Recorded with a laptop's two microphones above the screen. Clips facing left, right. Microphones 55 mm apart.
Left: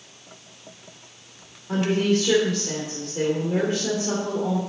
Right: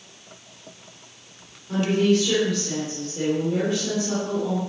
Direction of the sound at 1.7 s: 35° left (ahead or behind).